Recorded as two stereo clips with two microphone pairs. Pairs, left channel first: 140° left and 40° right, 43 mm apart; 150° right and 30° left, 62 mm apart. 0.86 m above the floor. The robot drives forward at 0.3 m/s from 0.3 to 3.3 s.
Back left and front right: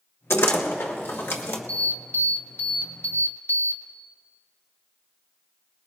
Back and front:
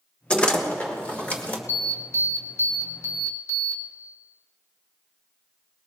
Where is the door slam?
135° left, 1.5 m; by 1.6 s 145° left, 1.8 m.